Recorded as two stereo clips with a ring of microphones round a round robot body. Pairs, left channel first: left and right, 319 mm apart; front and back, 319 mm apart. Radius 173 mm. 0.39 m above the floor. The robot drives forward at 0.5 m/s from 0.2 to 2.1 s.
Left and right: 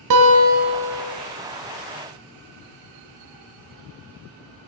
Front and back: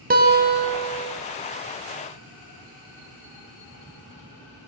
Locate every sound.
0.1 s a guitar: 120° right, 1.3 m; by 1.1 s 130° right, 1.6 m